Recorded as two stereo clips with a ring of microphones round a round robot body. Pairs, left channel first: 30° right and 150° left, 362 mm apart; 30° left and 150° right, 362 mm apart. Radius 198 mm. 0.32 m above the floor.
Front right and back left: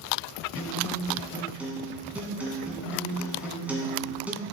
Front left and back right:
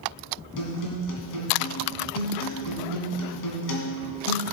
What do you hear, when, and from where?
0.6 s a guitar: 65° left, 2 m